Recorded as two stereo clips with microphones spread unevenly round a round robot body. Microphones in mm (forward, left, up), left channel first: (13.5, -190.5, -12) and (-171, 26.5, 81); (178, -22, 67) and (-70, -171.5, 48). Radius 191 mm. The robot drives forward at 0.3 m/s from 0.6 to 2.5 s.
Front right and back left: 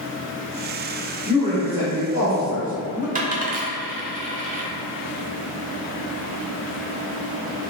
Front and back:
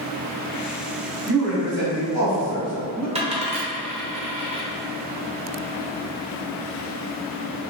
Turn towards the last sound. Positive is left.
turn(degrees=-155)